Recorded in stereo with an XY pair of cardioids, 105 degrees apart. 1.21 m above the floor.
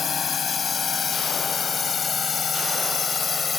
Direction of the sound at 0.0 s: 40° left.